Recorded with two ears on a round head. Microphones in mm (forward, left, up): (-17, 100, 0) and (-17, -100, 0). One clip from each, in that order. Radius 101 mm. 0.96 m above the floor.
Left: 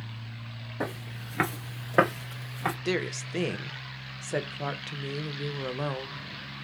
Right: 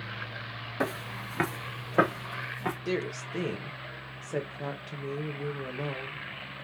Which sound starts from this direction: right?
Footsteps, at 0.8 s.